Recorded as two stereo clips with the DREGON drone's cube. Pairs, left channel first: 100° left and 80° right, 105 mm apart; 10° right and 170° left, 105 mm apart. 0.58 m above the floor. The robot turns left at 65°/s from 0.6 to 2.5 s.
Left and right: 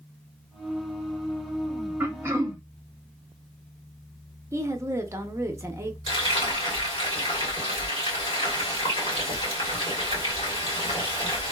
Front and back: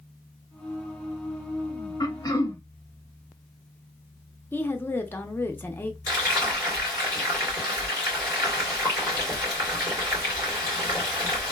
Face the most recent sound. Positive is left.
turn(degrees=120)